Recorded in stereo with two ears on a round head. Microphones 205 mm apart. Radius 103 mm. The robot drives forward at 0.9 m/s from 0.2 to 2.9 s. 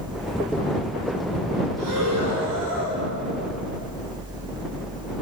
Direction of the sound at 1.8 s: 85° right.